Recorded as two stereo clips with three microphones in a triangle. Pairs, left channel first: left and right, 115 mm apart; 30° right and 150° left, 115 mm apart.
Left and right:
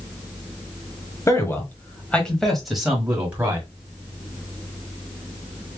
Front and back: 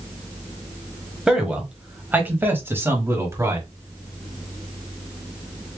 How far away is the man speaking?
About 1.3 m.